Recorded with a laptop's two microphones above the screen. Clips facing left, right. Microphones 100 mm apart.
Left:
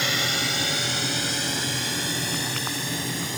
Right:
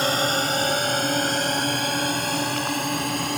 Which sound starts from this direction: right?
A drone, at 0.0 s.